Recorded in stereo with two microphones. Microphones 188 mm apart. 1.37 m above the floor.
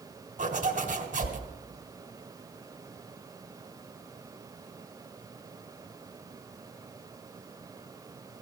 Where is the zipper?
45° right (ahead or behind), 2 m.